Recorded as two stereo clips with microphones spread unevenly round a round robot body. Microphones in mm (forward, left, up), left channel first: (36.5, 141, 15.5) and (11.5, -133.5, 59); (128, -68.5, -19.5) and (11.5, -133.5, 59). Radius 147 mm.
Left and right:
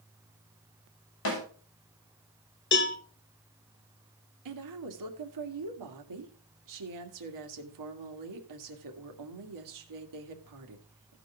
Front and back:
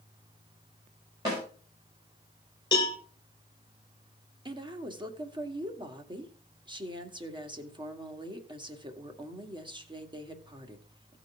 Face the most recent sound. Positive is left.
turn(degrees=-85)